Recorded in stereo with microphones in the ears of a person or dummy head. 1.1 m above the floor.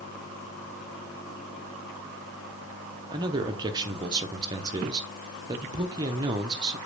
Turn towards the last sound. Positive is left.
turn(degrees=-25)  # may be behind; listen again after turning